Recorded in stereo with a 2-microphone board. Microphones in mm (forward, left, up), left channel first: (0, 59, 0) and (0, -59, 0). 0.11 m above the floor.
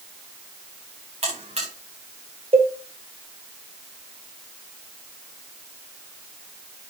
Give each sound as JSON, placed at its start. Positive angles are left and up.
{"t": 1.2, "sound": "a buzzer", "side_deg": -65, "distance_m": 6.0}
{"t": 2.5, "sound": "a cowbell", "side_deg": -50, "distance_m": 2.0}